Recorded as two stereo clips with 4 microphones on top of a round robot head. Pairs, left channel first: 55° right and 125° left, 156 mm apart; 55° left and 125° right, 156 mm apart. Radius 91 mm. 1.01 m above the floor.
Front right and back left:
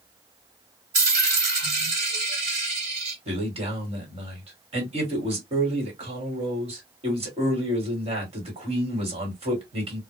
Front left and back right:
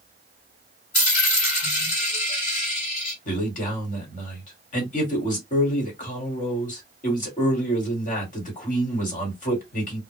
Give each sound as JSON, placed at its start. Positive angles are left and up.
{"t": 0.9, "sound": "a dropped coin", "azimuth_deg": 85, "distance_m": 1.6}
{"t": 3.2, "sound": "a man speaking", "azimuth_deg": 80, "distance_m": 1.5}